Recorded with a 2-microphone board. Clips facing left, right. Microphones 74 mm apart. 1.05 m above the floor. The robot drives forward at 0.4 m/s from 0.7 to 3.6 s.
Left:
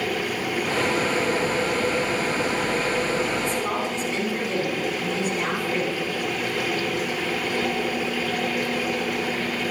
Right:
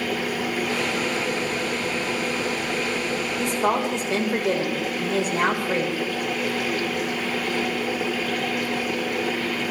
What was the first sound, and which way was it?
A woman speaking, 75° right (ahead or behind).